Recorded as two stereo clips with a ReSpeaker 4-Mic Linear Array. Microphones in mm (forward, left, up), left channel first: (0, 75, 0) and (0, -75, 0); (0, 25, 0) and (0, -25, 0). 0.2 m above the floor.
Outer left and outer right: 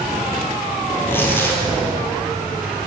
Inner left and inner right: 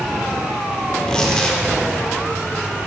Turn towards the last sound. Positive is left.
turn(degrees=15)  # may be behind; listen again after turning